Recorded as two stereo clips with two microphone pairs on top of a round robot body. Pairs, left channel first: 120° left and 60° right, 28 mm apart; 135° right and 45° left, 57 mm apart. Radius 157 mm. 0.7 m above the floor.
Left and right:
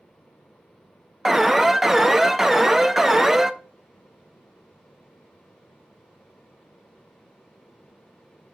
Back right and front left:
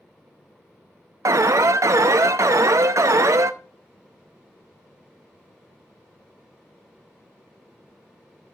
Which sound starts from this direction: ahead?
An alarm, at 1.2 s.